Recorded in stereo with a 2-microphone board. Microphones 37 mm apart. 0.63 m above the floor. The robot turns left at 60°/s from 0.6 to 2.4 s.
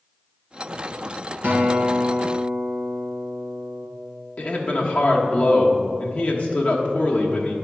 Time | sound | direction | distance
1.4 | a guitar | 105° right | 1.9 m
4.4 | a man speaking | 40° left (ahead or behind) | 1.1 m